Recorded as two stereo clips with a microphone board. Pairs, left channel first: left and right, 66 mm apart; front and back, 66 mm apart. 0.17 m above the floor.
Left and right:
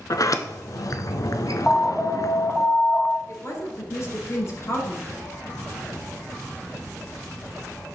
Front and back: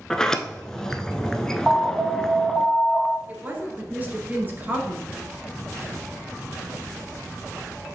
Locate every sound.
0.1 s a sliding door: 80° left, 0.6 m
1.7 s an alarm: 145° left, 0.7 m
3.3 s a woman speaking: 120° left, 1.8 m